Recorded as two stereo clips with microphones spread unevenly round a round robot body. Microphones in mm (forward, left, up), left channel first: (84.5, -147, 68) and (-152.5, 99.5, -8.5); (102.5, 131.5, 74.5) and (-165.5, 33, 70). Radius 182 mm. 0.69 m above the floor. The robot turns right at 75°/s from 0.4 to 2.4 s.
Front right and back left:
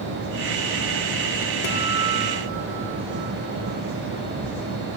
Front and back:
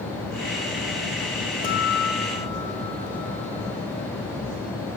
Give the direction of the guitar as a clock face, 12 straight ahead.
1 o'clock.